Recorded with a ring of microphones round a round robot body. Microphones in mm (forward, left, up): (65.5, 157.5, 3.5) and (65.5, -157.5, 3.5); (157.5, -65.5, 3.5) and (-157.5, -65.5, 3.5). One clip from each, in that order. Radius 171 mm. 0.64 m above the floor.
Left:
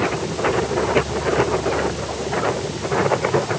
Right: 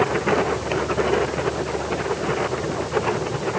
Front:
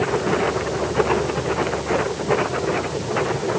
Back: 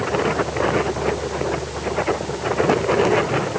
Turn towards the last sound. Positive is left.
No sound to turn to.